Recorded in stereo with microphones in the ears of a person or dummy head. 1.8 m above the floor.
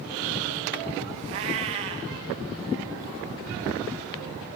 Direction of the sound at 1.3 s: 20° right (ahead or behind).